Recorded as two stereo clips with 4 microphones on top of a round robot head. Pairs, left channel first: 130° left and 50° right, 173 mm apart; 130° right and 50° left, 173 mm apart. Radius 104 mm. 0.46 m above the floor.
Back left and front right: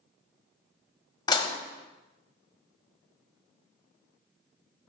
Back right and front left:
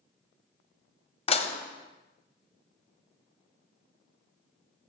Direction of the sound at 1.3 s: 175° right.